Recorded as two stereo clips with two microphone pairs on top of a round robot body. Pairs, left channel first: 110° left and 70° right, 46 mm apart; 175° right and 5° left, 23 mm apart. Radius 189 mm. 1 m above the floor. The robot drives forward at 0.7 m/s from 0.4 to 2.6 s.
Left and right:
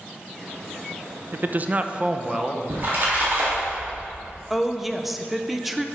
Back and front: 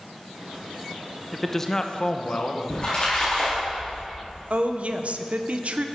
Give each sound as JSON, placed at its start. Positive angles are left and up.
{"t": 1.3, "sound": "a man speaking", "azimuth_deg": -80, "distance_m": 0.7}
{"t": 2.7, "sound": "a splash", "azimuth_deg": -115, "distance_m": 2.0}
{"t": 4.5, "sound": "a woman speaking", "azimuth_deg": 15, "distance_m": 0.7}